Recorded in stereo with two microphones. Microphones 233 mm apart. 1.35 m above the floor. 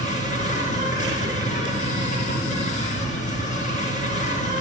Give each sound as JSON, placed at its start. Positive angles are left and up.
{"t": 0.0, "sound": "an insect", "side_deg": 30, "distance_m": 3.0}